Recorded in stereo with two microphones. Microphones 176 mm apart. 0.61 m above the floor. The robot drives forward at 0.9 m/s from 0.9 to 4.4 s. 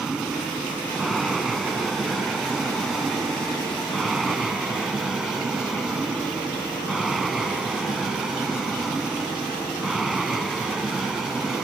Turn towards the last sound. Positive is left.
turn(degrees=0)  # may be behind; listen again after turning